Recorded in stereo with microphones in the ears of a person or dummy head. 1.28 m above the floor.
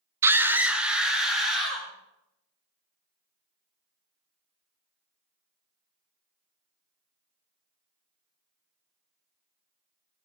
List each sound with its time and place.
0.2 s a scream: 10° right (ahead or behind), 0.7 m; by 1.9 s centre (ahead or behind), 2.5 m